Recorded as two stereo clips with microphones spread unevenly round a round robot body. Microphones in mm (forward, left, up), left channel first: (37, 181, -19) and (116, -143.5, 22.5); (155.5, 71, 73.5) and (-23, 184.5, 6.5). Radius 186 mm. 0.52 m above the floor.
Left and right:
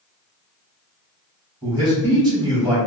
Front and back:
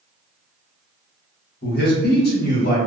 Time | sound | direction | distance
1.6 | a man speaking | 5° left | 1.4 m